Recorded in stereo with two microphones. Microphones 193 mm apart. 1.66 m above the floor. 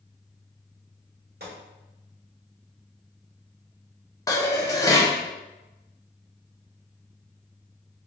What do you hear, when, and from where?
1.4 s a gunshot: 55° right (ahead or behind), 1.5 m
4.3 s dishes clattering: 20° left (ahead or behind), 0.8 m